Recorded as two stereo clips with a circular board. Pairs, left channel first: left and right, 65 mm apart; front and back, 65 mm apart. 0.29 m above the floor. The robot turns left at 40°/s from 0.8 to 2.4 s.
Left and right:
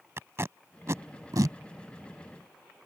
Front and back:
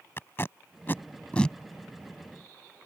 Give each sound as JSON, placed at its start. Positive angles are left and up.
{"t": 0.2, "sound": "tape being pulled", "azimuth_deg": -50}